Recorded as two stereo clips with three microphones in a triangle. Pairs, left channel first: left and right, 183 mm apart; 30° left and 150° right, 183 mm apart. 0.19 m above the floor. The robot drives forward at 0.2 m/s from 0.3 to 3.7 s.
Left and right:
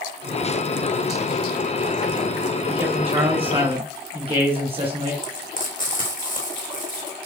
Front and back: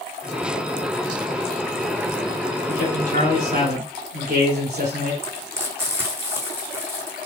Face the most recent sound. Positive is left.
turn(degrees=135)